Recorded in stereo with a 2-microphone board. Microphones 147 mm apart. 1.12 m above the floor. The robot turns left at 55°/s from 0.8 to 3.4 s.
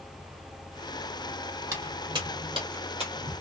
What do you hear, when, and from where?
1.7 s footsteps: 15° right (ahead or behind), 1.9 m; by 3.3 s 45° right (ahead or behind), 1.5 m